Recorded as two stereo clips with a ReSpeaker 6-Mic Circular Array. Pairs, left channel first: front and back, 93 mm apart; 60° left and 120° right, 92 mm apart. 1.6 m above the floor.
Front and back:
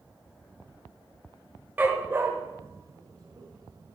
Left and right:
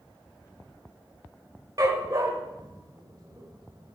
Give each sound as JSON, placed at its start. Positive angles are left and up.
{"t": 1.8, "sound": "a dog barking", "azimuth_deg": -120, "distance_m": 1.6}